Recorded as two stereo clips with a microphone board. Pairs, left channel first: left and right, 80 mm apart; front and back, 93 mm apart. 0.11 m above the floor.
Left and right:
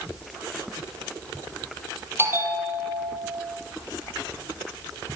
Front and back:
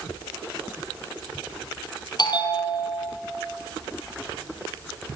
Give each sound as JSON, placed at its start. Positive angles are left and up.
{"t": 2.2, "sound": "a bell", "azimuth_deg": -35, "distance_m": 3.5}